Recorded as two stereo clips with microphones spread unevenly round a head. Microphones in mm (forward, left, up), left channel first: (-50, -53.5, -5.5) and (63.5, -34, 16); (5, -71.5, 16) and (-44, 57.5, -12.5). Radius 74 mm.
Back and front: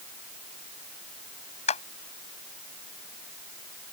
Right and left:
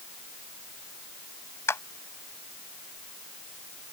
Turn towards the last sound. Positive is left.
turn(degrees=-140)